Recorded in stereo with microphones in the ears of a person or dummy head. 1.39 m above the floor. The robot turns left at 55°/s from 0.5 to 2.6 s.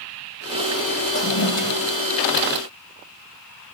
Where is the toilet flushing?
120° left, 2 m; by 1.9 s 80° left, 2 m.